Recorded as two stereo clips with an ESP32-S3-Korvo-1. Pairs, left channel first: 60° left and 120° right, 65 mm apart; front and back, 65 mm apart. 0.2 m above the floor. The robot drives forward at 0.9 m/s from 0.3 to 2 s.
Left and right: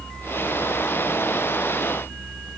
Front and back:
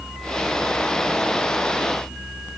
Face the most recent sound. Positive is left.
No sound to turn to.